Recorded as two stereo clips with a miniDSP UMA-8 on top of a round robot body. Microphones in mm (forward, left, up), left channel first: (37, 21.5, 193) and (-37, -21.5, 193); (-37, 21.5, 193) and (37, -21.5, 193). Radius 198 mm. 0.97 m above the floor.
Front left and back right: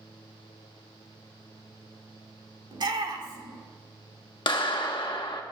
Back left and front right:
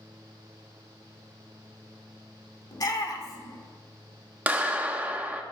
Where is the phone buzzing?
I don't hear a phone buzzing.